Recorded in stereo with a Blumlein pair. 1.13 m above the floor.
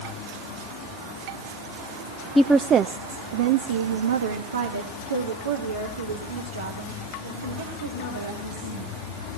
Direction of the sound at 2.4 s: 5° left.